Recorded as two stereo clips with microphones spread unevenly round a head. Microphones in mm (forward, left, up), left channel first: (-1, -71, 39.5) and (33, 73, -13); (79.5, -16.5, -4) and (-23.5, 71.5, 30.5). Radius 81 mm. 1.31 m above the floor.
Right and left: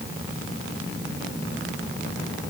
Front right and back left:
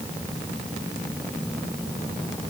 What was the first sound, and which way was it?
Only background noise.